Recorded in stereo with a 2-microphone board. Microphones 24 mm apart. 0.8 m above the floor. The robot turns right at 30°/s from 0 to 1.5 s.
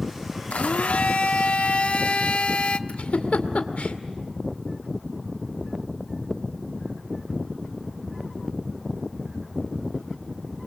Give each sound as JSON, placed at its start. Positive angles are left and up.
{"t": 0.5, "sound": "a blender", "azimuth_deg": 90, "distance_m": 1.0}
{"t": 2.9, "sound": "a giggle", "side_deg": 70, "distance_m": 2.0}